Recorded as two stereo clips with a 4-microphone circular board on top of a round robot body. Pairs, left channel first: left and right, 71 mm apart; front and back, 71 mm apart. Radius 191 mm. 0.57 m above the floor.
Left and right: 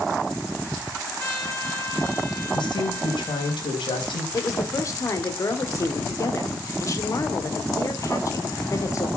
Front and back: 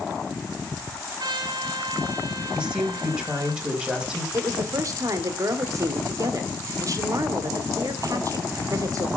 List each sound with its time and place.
1.2 s a trumpet: 150° left, 4.5 m
2.5 s a woman speaking: 100° left, 4 m
4.3 s a woman speaking: 140° left, 2 m